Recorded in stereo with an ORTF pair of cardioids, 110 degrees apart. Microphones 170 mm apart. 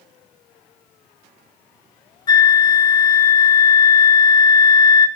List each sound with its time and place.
2.3 s a flute: 25° left, 0.9 m